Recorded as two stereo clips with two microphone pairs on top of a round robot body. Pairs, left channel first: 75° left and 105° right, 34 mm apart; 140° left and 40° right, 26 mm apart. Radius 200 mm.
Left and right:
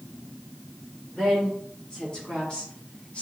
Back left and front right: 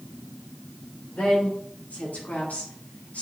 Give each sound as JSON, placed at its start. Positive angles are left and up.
{"t": 1.1, "sound": "a woman speaking", "azimuth_deg": 145, "distance_m": 3.5}